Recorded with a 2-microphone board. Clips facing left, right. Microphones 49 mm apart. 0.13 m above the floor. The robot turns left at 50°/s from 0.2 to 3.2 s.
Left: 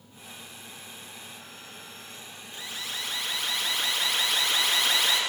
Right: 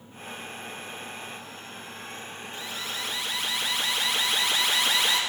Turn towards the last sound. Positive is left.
turn(degrees=-5)